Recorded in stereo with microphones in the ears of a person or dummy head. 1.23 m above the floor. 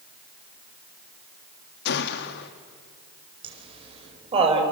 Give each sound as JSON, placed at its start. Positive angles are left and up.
{"t": 1.9, "sound": "a gunshot", "side_deg": 60, "distance_m": 1.5}
{"t": 3.4, "sound": "laughter", "side_deg": -30, "distance_m": 5.0}